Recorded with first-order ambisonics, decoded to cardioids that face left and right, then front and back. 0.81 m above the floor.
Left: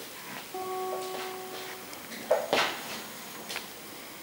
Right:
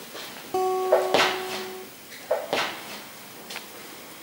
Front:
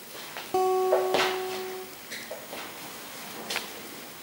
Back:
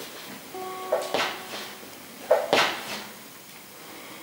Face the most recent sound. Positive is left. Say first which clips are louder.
# right 13 dB, front 6 dB
turn(degrees=-45)